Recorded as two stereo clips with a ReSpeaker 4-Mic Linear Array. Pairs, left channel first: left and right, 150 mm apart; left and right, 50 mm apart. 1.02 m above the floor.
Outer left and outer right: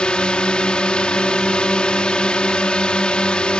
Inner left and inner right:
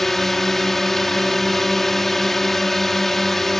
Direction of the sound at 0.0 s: 5° left (ahead or behind).